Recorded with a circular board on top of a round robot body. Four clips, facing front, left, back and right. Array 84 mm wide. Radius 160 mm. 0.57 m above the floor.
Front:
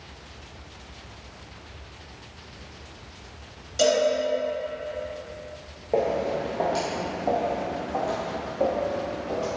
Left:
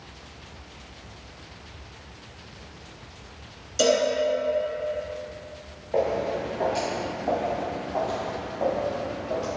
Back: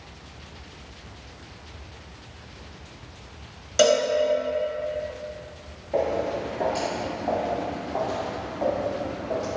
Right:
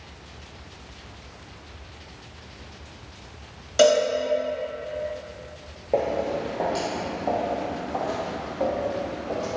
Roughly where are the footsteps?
Ahead right.